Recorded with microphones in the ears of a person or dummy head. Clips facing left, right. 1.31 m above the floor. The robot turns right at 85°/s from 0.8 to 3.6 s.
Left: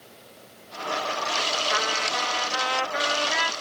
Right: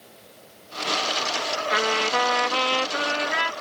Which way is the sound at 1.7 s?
145° right.